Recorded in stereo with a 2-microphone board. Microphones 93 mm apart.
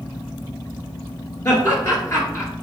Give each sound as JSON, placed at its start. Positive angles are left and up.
{"t": 1.4, "sound": "laughter", "side_deg": 35, "distance_m": 2.0}